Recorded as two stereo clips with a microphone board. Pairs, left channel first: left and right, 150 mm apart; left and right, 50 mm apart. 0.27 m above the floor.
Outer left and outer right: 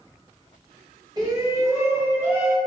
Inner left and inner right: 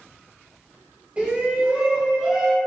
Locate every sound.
1.2 s a shout: 30° right (ahead or behind), 1.7 m; by 2.6 s 10° right (ahead or behind), 1.7 m